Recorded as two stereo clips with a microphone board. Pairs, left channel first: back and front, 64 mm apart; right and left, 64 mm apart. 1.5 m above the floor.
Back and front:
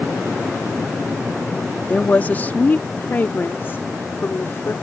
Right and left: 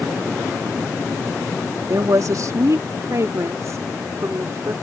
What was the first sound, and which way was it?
A woman speaking, 115° left.